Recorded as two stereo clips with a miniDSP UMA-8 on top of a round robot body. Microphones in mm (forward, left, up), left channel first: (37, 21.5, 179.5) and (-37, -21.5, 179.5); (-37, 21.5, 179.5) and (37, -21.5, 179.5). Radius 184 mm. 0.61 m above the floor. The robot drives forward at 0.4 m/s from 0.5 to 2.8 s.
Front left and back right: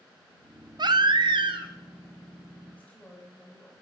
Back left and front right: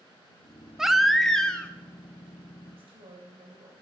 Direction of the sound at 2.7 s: 35° right.